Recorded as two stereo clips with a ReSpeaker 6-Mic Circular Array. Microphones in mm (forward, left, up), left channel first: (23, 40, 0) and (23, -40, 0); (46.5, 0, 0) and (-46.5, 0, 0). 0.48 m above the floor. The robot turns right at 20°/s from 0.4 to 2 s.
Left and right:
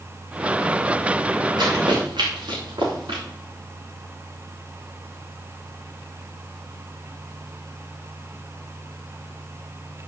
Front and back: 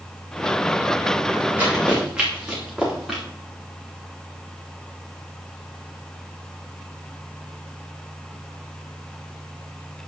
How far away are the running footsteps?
About 3 m.